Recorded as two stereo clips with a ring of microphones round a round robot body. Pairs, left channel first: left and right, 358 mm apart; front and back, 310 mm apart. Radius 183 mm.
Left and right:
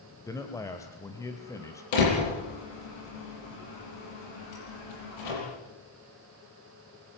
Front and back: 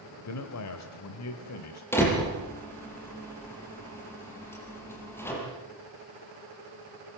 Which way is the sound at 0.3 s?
10° left.